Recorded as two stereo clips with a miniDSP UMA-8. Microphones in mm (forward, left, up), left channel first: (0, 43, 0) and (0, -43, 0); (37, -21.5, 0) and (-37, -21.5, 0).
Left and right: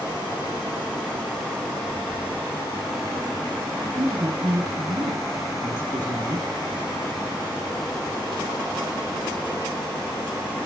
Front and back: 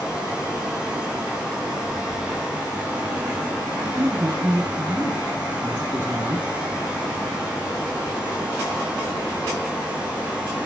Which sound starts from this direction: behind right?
A woman speaking, at 3.7 s.